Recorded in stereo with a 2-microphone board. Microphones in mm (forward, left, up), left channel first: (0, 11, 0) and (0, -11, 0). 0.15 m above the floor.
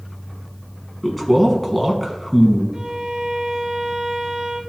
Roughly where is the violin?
Right.